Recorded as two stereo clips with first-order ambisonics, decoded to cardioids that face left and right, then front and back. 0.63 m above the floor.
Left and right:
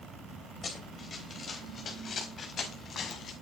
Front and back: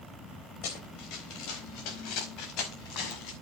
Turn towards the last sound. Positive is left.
turn(degrees=30)